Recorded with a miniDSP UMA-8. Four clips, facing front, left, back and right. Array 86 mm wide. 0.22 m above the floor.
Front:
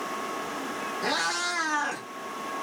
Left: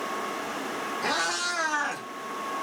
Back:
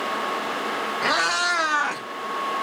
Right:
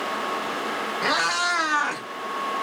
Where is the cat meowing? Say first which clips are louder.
Right 6 dB, back 6 dB; 160° right, 1.1 m; by 2.0 s 145° right, 0.7 m.